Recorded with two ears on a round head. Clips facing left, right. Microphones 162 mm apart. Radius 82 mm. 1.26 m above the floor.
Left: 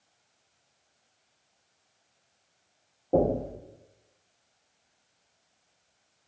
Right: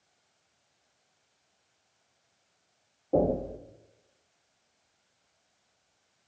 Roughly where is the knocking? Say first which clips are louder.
Left 1 dB; left.